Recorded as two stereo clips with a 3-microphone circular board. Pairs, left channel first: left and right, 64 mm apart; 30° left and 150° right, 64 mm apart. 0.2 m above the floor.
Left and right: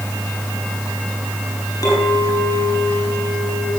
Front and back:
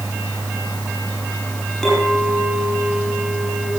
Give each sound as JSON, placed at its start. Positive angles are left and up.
{"t": 1.8, "sound": "a clink", "azimuth_deg": 110, "distance_m": 6.0}